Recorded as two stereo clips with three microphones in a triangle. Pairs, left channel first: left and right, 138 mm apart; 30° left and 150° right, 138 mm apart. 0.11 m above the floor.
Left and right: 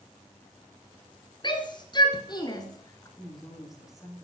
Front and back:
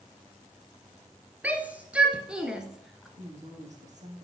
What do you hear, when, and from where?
1.4 s a shout: 135° left, 1.9 m; by 3.1 s 125° left, 1.4 m
3.2 s a woman speaking: straight behind, 5 m